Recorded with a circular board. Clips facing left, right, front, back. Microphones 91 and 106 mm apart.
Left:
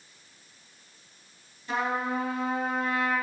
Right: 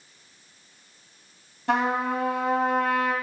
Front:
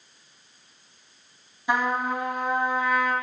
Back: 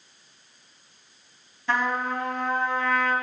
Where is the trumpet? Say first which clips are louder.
Right 5 dB, front 1 dB; 75° right, 1.7 m.